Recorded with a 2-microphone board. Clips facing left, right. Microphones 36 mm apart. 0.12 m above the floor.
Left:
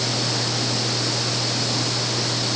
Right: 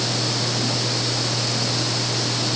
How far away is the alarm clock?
No alarm clock in this recording.